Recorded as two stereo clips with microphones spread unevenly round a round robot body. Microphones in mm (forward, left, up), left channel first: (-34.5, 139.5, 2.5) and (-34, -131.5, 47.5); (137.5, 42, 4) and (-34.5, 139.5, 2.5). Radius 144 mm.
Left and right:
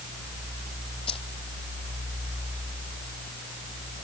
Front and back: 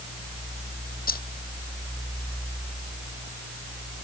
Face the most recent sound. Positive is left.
turn(degrees=15)